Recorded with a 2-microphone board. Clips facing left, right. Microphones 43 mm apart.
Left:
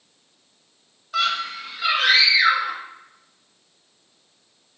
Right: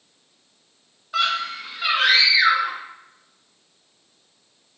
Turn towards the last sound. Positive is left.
turn(degrees=-15)  # may be behind; listen again after turning